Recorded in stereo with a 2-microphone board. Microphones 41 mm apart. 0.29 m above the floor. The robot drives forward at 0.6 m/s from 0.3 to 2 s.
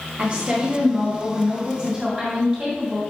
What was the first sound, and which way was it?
A woman speaking, 35° right (ahead or behind).